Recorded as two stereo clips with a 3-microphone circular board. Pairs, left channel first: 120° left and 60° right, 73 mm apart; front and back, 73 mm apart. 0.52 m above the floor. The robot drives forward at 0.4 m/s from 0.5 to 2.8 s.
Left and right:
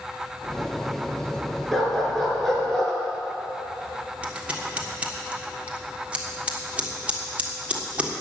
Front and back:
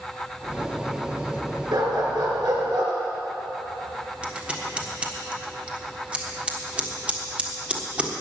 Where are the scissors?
120° right, 1.6 m.